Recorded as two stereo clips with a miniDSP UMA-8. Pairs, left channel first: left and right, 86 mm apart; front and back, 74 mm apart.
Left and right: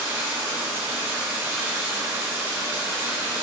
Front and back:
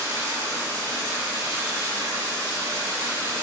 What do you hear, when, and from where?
0.0 s running water: 135° right, 0.9 m